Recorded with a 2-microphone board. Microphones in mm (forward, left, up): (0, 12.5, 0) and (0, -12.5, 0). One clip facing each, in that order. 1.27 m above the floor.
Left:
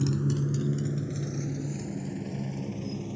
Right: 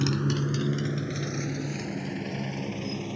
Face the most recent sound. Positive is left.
turn(degrees=-45)  # may be behind; listen again after turning